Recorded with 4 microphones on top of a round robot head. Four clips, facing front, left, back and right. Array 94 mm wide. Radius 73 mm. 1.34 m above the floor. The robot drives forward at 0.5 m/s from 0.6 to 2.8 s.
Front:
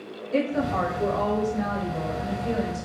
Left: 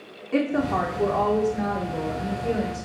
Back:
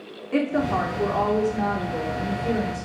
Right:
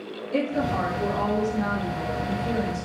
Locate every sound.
0.3 s a woman speaking: 140° left, 3 m; by 2.9 s 150° left, 4 m